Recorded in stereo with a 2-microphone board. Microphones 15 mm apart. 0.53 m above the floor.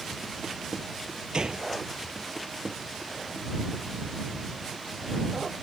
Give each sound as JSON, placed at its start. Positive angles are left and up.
{"t": 1.3, "sound": "a gunshot", "side_deg": -55}